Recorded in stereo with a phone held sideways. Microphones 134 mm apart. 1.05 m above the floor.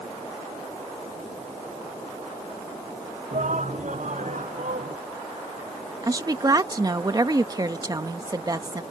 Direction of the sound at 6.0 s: 30° right (ahead or behind).